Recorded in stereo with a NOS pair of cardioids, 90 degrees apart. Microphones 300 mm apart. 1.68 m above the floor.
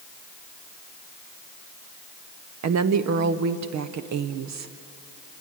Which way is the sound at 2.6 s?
60° right.